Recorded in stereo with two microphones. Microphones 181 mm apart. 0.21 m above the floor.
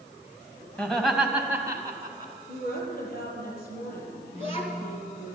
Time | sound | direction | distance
0.8 | laughter | 10° left (ahead or behind) | 1.3 m
2.5 | a woman speaking | 55° left (ahead or behind) | 4.5 m
4.3 | a child speaking | 35° left (ahead or behind) | 2 m